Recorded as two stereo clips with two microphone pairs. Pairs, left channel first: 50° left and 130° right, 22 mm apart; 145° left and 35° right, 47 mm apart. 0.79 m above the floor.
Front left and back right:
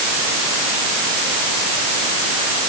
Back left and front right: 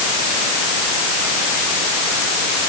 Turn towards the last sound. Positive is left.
No sound to turn to.